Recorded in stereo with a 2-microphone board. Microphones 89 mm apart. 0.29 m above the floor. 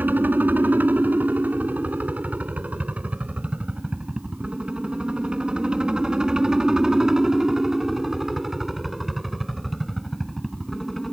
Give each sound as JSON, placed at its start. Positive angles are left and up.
{"t": 0.0, "sound": "a helicopter", "side_deg": -20}